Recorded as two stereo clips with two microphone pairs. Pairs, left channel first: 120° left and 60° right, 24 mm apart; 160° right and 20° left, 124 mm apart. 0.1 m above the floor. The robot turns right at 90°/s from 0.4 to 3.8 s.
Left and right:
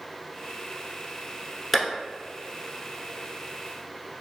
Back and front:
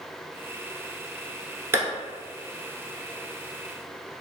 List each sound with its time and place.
1.7 s a clap: 25° left, 1.0 m; by 1.9 s 35° left, 1.0 m